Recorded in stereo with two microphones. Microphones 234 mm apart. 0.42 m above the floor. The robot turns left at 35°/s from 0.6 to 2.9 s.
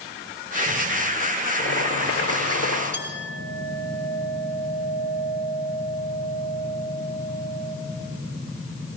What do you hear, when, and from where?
1.6 s boiling: 120° left, 5.5 m; by 2.8 s 80° left, 5.5 m
2.9 s a clink: 45° left (ahead or behind), 5 m